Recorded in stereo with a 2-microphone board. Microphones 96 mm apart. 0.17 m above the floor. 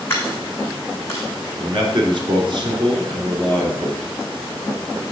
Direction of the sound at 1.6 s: 55° right (ahead or behind).